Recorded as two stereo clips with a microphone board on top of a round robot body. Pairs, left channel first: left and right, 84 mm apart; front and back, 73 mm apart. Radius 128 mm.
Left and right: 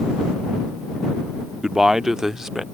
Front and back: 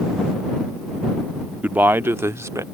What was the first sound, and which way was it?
A man speaking, 165° right.